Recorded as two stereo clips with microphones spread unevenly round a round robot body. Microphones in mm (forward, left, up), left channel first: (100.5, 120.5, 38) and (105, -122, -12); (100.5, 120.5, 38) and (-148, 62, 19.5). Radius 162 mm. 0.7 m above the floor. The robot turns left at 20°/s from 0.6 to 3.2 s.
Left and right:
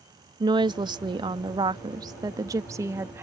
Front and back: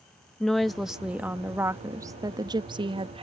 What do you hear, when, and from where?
0.4 s a woman speaking: 85° right; by 3.2 s 135° right